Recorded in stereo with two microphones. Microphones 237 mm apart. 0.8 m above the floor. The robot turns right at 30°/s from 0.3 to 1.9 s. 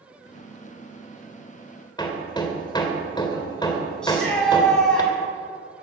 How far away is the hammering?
About 1.8 m.